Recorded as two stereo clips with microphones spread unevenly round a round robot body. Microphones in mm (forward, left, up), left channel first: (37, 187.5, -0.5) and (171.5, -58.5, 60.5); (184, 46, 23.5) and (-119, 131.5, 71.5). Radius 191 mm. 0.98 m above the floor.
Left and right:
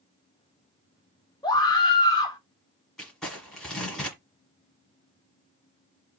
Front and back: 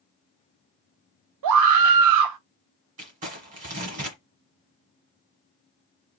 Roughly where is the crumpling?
Behind right.